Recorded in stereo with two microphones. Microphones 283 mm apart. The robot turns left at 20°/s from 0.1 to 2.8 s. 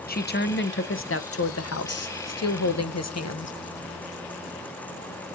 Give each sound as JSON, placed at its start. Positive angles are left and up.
{"t": 0.1, "sound": "a woman speaking", "azimuth_deg": 145, "distance_m": 0.6}